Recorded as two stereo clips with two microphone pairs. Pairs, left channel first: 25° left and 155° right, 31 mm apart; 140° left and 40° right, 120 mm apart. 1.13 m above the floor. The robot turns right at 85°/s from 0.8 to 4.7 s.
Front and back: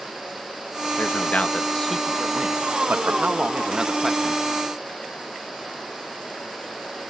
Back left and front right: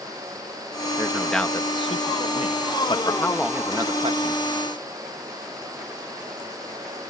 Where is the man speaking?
25° left; by 4.4 s 45° right.